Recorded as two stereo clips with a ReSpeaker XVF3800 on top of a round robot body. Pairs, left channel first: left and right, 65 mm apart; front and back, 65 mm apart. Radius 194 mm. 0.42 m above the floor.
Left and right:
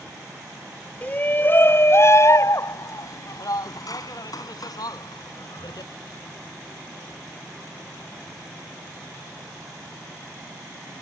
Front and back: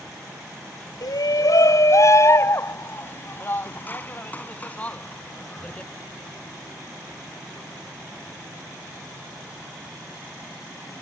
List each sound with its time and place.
1.0 s a shout: 25° left; by 5.9 s 75° left